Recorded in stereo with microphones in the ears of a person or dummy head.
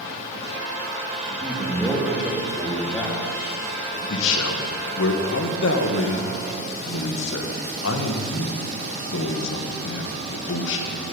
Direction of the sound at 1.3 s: 10° right (ahead or behind).